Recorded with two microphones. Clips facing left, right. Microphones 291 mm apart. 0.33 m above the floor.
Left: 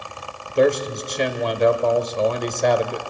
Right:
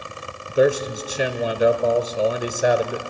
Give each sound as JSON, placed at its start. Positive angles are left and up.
{"t": 0.6, "sound": "a man speaking", "side_deg": -10, "distance_m": 1.1}